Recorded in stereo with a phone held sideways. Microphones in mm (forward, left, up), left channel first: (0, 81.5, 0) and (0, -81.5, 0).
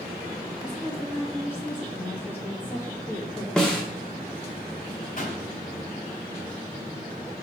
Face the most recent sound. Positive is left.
turn(degrees=60)  # may be behind; listen again after turning